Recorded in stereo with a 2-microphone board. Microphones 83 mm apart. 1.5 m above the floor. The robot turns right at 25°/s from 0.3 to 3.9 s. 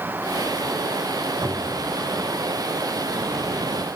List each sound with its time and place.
1.4 s a cupboard door: 75° right (ahead or behind), 3 m; by 1.9 s 65° right (ahead or behind), 3 m